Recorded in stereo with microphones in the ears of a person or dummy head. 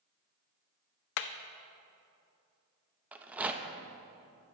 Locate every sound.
1.2 s hammering: 60° left (ahead or behind), 0.7 m
3.1 s a rattle: 5° right (ahead or behind), 1.0 m